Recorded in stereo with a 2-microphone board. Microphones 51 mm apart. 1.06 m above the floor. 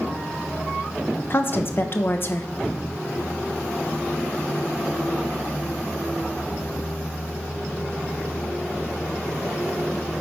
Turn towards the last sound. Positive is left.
turn(degrees=45)  # may be behind; listen again after turning